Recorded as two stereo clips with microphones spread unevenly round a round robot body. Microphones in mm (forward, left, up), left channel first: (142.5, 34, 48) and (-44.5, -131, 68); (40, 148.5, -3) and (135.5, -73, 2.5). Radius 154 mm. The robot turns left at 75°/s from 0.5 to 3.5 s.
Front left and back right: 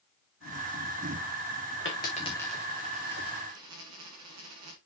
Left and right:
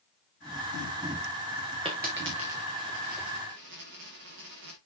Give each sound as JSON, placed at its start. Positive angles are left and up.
{"t": 1.9, "sound": "a dropped coin", "azimuth_deg": 0, "distance_m": 4.0}